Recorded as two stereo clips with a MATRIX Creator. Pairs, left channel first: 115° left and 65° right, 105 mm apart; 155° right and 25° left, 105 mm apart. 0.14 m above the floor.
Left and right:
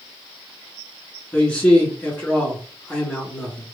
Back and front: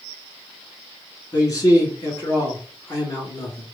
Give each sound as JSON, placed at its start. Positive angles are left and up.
{"t": 1.3, "sound": "a man speaking", "azimuth_deg": -175, "distance_m": 1.6}